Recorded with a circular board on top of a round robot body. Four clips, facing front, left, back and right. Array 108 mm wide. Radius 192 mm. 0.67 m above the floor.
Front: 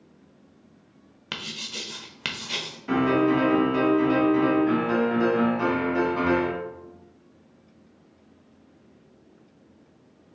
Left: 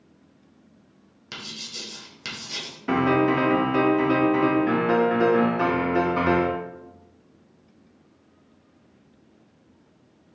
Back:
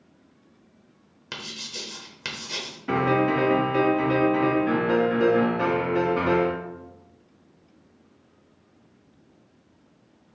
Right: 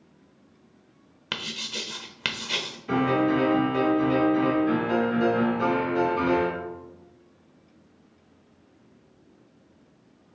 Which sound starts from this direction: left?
A piano, at 2.9 s.